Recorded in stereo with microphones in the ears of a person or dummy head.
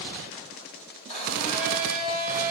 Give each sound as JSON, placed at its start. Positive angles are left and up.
{"t": 1.1, "sound": "a blender", "side_deg": 35, "distance_m": 3.0}